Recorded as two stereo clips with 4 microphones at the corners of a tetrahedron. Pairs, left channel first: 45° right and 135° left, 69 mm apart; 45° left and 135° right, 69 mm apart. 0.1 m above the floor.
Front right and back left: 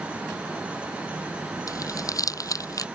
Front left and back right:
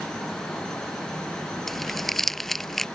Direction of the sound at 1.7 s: 40° right.